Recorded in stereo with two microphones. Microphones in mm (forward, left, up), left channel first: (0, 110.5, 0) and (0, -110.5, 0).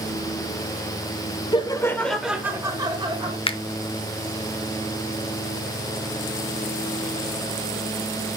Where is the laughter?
20° left (ahead or behind), 1.0 m; by 3.4 s 25° right (ahead or behind), 1.8 m.